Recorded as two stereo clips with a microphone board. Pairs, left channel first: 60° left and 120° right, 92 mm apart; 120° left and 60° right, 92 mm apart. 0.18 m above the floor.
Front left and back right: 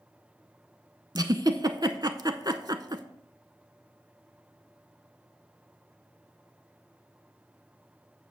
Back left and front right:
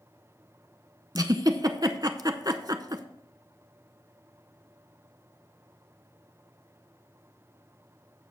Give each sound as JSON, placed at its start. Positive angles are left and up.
{"t": 1.1, "sound": "a giggle", "azimuth_deg": -90, "distance_m": 0.7}